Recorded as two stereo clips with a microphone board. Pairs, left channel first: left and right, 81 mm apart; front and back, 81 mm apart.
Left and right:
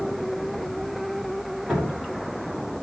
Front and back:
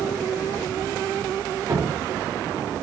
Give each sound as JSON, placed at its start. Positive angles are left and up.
{"t": 1.7, "sound": "dripping", "azimuth_deg": -175, "distance_m": 1.2}